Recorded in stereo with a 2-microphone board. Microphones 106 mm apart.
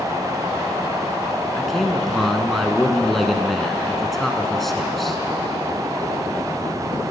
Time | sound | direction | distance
1.6 | a man speaking | centre (ahead or behind) | 1.5 m